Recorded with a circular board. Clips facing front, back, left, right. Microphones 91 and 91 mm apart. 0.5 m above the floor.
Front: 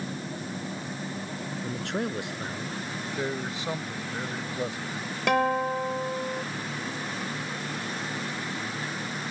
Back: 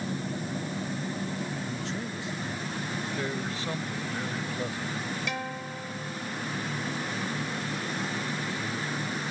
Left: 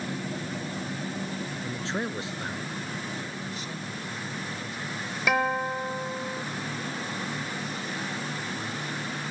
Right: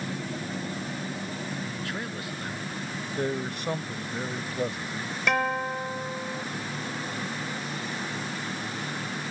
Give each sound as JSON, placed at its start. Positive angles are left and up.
{"t": 1.6, "sound": "a man speaking", "azimuth_deg": 25}
{"t": 3.2, "sound": "a man speaking", "azimuth_deg": -70}
{"t": 5.3, "sound": "a guitar", "azimuth_deg": 5}